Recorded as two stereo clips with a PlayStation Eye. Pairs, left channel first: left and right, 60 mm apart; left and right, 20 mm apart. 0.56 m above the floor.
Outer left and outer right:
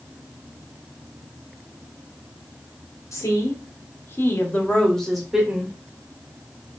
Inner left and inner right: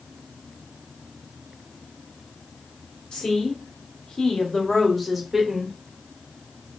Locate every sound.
3.1 s a woman speaking: 55° left (ahead or behind), 1.0 m; by 5.7 s 15° right (ahead or behind), 0.8 m